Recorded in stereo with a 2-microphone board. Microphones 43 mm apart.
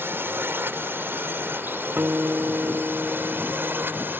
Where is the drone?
55° right (ahead or behind); by 4.2 s 50° right (ahead or behind).